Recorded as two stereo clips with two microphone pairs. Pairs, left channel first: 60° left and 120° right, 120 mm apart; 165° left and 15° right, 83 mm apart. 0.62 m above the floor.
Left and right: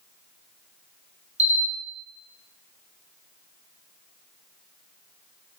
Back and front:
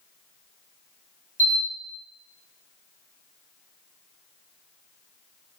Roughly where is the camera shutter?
Behind right.